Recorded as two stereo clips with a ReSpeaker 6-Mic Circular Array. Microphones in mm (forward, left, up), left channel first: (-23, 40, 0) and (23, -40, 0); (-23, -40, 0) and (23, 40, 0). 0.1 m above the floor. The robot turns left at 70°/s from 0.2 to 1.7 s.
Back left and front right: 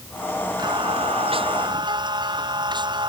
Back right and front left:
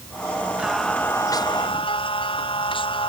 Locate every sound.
0.6 s singing: 20° right; by 3.1 s 95° right